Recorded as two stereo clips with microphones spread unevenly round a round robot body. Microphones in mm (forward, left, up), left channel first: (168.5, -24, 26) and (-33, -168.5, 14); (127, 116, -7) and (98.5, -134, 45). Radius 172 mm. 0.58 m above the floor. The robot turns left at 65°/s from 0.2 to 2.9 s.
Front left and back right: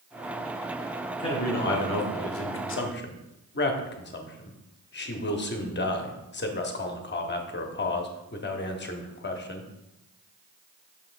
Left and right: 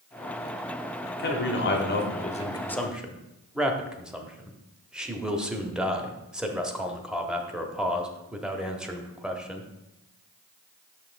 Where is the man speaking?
110° left, 1.1 m; by 9.7 s straight ahead, 1.1 m.